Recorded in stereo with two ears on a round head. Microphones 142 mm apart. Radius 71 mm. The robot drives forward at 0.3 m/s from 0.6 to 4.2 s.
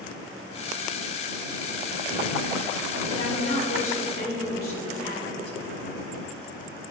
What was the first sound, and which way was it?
A woman speaking, 50° left (ahead or behind).